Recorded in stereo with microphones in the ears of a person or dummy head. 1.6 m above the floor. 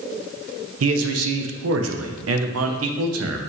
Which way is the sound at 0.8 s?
75° right (ahead or behind).